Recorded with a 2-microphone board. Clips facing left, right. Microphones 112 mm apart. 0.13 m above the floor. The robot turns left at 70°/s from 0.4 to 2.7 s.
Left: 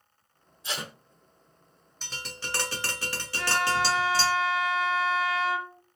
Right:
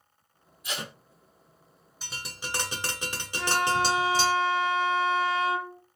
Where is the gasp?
I don't hear a gasp.